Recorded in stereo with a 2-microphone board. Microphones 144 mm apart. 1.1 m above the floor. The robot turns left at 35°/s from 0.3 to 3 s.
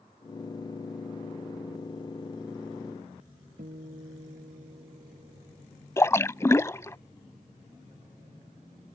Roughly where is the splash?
Centre.